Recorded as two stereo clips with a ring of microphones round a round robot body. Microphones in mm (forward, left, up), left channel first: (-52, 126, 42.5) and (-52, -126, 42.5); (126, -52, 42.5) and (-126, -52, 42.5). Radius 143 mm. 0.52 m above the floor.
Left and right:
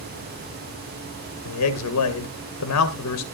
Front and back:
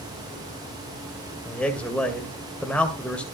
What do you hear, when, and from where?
1.4 s a man speaking: 85° left, 2 m